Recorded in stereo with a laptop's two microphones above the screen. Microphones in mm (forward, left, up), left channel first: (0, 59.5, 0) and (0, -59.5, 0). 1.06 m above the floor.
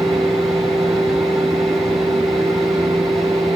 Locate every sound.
0.0 s a fan: 85° right, 8 m